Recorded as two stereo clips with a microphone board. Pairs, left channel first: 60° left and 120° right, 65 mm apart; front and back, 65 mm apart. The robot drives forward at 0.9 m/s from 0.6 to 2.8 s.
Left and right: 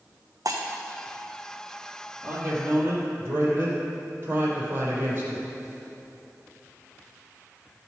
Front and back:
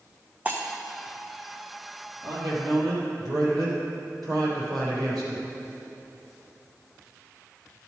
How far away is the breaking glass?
About 1.4 m.